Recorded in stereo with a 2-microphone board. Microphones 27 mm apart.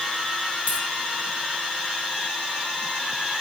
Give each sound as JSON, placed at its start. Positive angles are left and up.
{"t": 0.7, "sound": "a dropped coin", "side_deg": -70, "distance_m": 3.5}